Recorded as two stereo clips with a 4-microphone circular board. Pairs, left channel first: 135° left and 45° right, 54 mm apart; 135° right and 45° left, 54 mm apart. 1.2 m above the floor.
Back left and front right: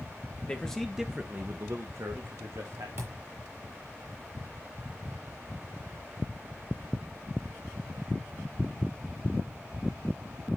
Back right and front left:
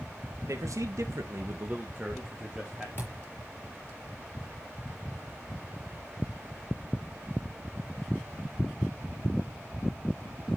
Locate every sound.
0.5 s a man speaking: 65° left, 1.5 m; by 2.9 s 45° right, 2.5 m
3.0 s a thud: 85° right, 5.5 m